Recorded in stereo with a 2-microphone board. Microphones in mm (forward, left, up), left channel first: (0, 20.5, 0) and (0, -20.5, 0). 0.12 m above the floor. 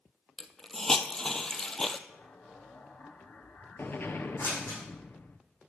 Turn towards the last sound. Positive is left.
turn(degrees=60)  # may be behind; listen again after turning